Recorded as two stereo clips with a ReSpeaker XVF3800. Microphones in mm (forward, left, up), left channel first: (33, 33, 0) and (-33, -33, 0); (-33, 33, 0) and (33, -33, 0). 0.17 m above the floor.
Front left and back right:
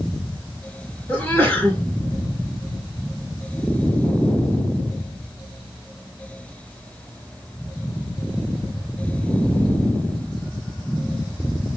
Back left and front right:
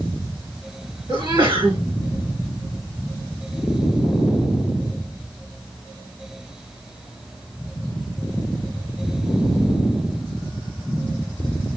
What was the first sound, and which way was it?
A sneeze, 25° right.